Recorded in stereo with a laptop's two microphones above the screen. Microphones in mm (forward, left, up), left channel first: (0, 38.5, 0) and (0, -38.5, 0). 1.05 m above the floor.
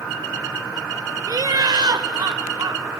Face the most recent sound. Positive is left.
turn(degrees=-70)  # may be behind; listen again after turning